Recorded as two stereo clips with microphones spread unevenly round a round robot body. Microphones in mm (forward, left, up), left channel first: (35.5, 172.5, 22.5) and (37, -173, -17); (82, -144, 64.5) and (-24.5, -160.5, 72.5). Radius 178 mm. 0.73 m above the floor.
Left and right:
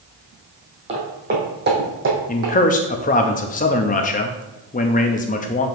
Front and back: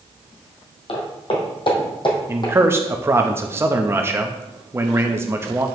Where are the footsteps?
15° right, 2 m; by 2.5 s 40° right, 2.5 m.